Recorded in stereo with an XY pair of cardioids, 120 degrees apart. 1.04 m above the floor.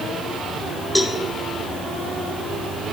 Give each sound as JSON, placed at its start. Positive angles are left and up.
{"t": 0.9, "sound": "a cowbell", "azimuth_deg": 0, "distance_m": 0.7}